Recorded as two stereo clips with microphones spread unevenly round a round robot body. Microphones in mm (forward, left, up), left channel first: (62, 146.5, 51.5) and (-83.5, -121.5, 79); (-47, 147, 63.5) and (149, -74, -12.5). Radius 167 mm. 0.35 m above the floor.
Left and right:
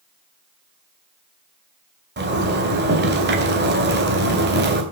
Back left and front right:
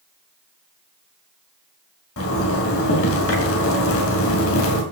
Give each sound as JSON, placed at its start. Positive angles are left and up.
{"t": 2.2, "sound": "a zipper", "azimuth_deg": -175, "distance_m": 3.5}